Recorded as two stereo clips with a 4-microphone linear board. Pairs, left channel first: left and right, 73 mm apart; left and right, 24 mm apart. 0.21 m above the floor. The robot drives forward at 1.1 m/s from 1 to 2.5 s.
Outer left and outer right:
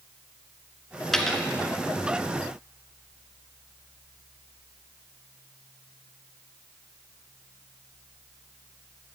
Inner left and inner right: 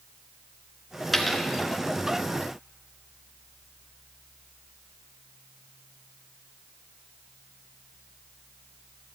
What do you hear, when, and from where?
1.1 s a dropped coin: 5° left (ahead or behind), 1.3 m